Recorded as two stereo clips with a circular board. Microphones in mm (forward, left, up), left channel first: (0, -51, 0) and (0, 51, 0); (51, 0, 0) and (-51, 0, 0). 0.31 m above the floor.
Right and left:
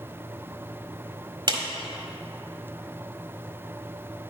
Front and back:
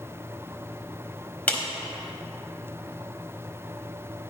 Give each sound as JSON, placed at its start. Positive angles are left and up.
{"t": 1.5, "sound": "a clap", "azimuth_deg": 70, "distance_m": 1.4}